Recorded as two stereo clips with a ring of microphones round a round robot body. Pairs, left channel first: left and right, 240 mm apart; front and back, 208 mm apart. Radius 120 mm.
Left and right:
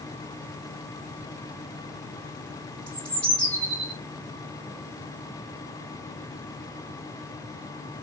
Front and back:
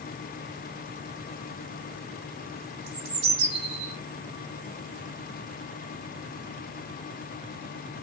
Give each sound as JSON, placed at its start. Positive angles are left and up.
{"t": 2.9, "sound": "a bird", "azimuth_deg": 175, "distance_m": 0.8}